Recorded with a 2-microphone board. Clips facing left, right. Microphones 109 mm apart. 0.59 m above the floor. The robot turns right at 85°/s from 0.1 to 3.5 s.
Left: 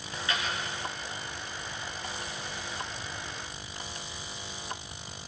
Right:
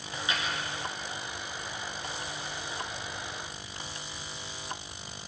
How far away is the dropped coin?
About 3 m.